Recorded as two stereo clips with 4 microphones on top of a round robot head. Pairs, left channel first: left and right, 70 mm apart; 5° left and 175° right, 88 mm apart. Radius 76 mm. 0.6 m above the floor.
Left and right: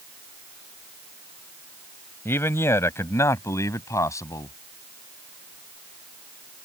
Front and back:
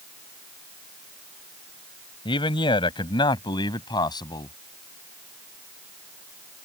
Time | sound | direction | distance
2.2 | a man speaking | 35° left | ?